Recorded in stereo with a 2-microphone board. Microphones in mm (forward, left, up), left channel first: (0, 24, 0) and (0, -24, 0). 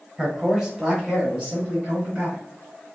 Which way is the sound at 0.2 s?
10° right (ahead or behind).